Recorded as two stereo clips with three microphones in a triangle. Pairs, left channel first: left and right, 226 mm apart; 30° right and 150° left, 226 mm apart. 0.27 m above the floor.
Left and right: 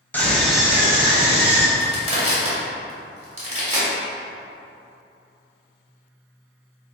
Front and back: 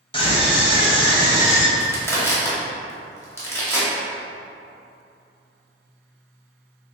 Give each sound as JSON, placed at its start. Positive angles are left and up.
{"t": 0.1, "sound": "a scream", "azimuth_deg": 15, "distance_m": 1.2}
{"t": 1.8, "sound": "crushing", "azimuth_deg": -95, "distance_m": 1.3}